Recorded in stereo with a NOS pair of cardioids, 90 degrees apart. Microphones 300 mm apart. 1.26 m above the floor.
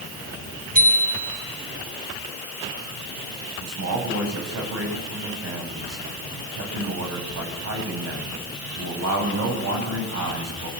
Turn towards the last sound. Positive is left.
turn(degrees=-55)